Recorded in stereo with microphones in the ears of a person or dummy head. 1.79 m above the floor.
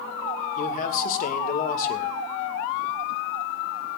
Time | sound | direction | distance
0.6 | a man speaking | 50° left (ahead or behind) | 2 m